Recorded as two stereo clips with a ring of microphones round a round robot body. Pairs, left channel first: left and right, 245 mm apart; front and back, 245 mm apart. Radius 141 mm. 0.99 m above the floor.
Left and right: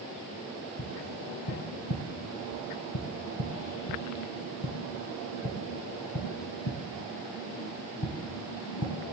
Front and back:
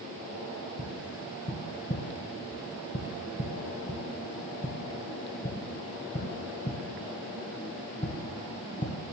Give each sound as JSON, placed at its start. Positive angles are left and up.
{"t": 0.8, "sound": "tapping", "azimuth_deg": 65, "distance_m": 3.0}